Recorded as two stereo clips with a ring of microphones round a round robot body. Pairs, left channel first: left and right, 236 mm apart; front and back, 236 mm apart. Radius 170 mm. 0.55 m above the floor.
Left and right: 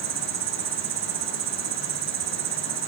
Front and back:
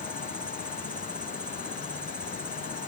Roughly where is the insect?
Right.